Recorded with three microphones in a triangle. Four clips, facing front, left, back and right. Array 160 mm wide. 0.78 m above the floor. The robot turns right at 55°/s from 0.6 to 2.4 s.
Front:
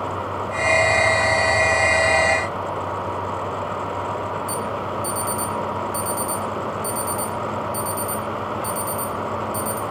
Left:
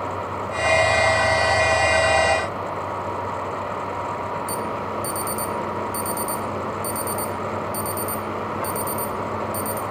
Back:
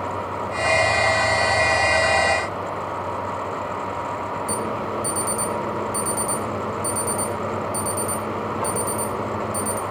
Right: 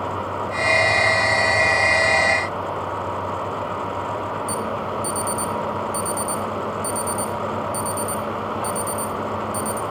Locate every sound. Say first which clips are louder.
4.5 s an alarm: right 1 dB, even; 170° left, 3.5 m